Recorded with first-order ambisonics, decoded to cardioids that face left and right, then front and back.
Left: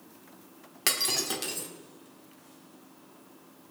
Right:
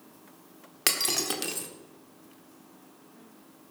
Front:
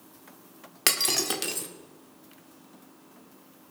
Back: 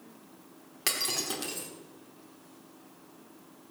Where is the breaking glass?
25° right, 1.2 m.